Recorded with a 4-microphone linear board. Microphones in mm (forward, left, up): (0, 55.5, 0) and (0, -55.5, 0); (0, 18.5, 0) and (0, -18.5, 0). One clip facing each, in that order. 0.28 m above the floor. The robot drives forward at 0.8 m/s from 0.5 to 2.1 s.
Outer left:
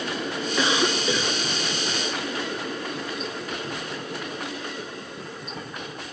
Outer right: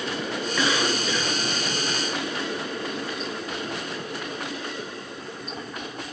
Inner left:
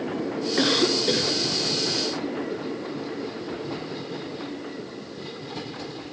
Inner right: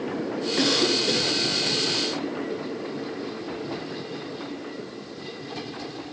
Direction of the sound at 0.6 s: 20° left (ahead or behind).